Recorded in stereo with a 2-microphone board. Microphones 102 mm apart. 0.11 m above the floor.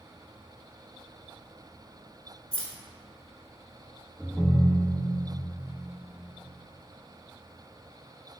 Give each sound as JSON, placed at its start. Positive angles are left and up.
{"t": 2.5, "sound": "keys jangling", "side_deg": 10, "distance_m": 1.0}
{"t": 4.2, "sound": "a ringtone", "side_deg": 10, "distance_m": 0.8}